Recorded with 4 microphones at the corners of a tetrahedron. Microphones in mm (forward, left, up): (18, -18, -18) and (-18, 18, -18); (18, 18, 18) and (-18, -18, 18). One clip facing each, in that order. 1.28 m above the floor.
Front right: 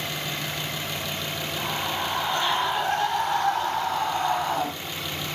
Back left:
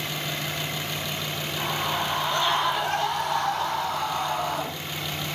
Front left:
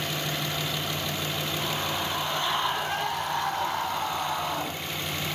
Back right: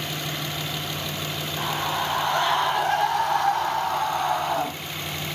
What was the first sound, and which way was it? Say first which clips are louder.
A scream: back left 2 dB, back right 7 dB; 135° right.